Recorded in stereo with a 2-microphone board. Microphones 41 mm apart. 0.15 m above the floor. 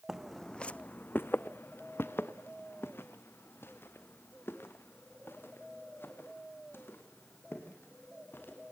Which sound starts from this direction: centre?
Footsteps, at 0.1 s.